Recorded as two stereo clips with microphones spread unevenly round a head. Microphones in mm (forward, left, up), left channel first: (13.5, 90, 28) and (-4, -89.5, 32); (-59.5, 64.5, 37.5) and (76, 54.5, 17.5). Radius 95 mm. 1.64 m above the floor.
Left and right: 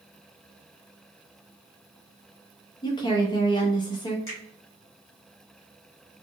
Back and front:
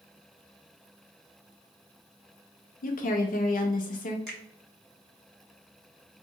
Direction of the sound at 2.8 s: 150° left.